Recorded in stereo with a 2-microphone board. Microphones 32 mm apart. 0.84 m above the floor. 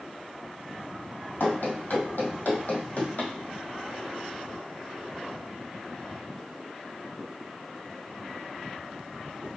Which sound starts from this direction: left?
Running footsteps, at 1.4 s.